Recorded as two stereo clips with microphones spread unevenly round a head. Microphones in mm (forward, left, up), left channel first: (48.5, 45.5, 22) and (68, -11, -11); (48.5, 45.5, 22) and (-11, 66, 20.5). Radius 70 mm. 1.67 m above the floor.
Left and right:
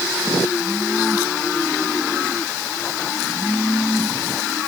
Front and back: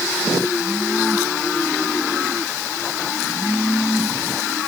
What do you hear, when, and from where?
Only background noise.